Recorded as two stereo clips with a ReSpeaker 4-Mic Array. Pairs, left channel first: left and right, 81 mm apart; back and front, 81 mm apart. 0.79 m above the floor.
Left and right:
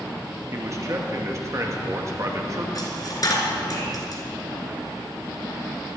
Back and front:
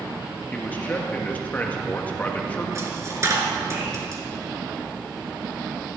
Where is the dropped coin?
50° left, 2.5 m.